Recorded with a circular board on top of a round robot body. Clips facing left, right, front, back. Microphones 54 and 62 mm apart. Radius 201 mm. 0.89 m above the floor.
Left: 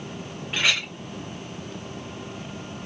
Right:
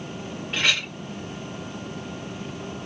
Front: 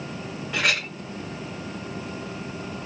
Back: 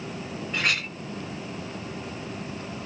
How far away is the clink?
About 1.0 m.